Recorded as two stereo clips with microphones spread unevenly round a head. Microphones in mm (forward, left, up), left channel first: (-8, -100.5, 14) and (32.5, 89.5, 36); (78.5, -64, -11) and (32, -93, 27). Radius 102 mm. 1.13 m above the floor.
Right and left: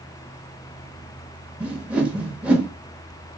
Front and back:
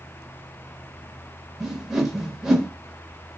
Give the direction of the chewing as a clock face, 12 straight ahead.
I don't hear chewing.